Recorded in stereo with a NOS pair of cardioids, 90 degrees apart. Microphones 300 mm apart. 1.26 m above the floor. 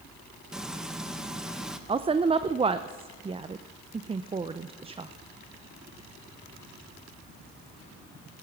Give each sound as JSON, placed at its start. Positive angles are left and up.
{"t": 0.5, "sound": "frying", "azimuth_deg": 0, "distance_m": 1.1}
{"t": 1.9, "sound": "a woman speaking", "azimuth_deg": -20, "distance_m": 0.5}